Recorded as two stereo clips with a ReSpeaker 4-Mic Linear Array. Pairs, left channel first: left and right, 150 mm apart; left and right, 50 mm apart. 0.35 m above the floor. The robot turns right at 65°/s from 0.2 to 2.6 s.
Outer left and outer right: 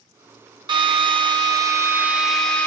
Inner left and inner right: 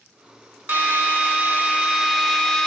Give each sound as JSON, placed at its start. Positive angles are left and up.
{"t": 0.7, "sound": "a drill", "azimuth_deg": -110, "distance_m": 1.0}